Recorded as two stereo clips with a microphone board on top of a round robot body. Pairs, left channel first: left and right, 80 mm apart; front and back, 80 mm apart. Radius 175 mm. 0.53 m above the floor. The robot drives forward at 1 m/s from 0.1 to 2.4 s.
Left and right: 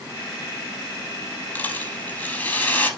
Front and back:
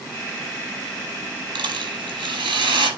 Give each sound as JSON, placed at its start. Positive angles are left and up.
{"t": 1.6, "sound": "a rattle", "azimuth_deg": 160, "distance_m": 6.0}